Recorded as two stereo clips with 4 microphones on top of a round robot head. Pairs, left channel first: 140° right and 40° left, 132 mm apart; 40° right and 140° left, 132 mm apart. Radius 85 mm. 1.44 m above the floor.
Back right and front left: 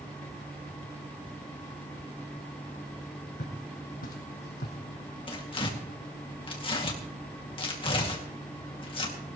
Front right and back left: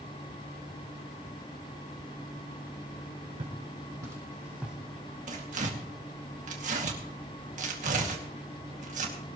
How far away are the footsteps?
About 3 m.